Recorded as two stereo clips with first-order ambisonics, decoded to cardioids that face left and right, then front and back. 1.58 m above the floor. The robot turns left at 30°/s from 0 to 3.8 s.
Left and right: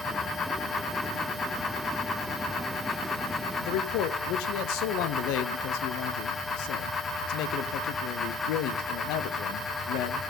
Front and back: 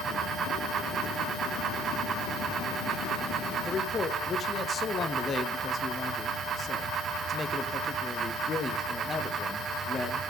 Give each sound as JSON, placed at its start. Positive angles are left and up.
{"t": 3.6, "sound": "a man speaking", "azimuth_deg": 75, "distance_m": 0.6}